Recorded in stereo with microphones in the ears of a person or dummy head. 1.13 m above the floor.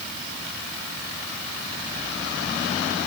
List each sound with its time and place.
Only background noise.